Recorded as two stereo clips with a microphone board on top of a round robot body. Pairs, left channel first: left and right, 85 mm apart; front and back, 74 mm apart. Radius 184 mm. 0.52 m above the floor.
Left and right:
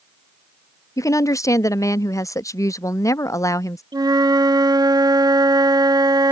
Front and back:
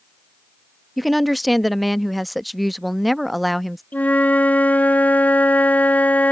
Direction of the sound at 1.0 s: 90° left.